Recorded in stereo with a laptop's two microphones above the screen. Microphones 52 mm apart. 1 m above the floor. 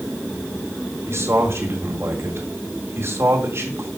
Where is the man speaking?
55° right (ahead or behind), 2.5 m.